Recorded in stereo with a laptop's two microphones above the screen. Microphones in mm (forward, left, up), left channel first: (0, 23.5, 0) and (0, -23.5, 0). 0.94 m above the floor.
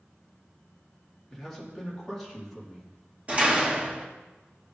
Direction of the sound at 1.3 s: 10° left (ahead or behind).